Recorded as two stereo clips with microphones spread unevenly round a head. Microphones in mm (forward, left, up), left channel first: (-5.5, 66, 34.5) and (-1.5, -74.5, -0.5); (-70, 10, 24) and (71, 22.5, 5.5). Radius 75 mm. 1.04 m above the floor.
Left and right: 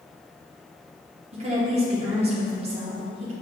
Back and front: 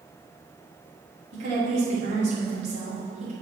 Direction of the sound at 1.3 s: 40° right.